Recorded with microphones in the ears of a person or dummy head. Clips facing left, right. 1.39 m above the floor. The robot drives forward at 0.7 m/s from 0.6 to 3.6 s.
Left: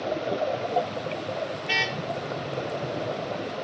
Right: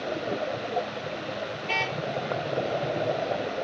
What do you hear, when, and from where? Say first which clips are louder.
1.6 s a car horn: even; 15° left (ahead or behind)